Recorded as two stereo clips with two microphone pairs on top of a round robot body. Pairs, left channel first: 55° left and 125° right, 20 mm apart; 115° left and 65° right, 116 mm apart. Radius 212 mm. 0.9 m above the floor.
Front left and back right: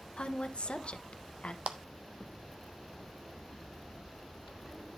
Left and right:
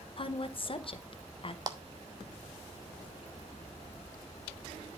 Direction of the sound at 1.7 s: 125° right.